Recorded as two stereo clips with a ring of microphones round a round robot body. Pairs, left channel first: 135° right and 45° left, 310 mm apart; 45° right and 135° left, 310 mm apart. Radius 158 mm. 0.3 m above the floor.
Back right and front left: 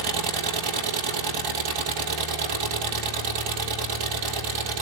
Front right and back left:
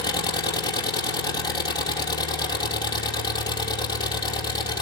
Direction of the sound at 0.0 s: 35° left.